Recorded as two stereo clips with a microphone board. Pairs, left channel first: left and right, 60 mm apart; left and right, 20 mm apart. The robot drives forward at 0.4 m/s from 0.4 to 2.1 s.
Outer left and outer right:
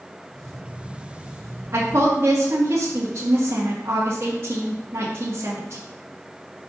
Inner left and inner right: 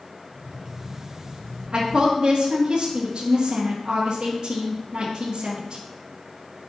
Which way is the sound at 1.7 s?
50° right (ahead or behind).